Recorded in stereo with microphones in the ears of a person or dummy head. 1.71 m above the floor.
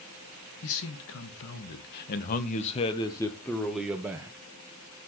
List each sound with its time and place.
0.6 s a man speaking: 80° left, 2 m; by 4.4 s 15° right (ahead or behind), 1.6 m